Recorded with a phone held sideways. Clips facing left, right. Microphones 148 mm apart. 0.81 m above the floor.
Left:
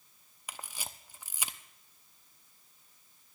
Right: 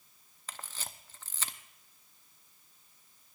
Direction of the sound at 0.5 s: 10° left (ahead or behind).